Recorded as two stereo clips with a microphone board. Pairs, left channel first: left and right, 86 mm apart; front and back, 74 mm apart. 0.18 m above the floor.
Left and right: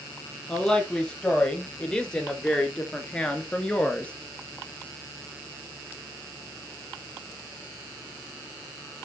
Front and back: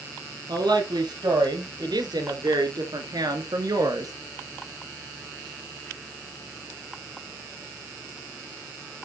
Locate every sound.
0.5 s a woman speaking: 165° left, 4 m